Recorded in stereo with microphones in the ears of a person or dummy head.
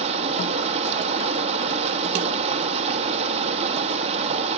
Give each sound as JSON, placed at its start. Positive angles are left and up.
{"t": 0.0, "sound": "running water", "side_deg": -35, "distance_m": 1.1}